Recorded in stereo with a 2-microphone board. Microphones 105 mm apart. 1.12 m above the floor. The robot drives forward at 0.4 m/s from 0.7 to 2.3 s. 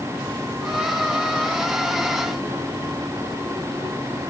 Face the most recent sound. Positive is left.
No sound to turn to.